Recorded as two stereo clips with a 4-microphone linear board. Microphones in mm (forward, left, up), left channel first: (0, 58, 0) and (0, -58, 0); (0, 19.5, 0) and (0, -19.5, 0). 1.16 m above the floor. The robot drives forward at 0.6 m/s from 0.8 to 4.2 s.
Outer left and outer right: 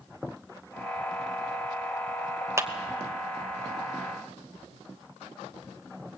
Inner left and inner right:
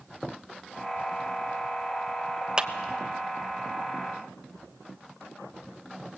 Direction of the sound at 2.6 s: 25° right (ahead or behind).